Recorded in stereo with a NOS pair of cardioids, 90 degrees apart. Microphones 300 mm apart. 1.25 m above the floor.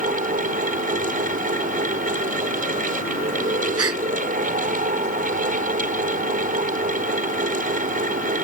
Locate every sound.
0.0 s a fan: 30° right
3.8 s a gasp: 50° right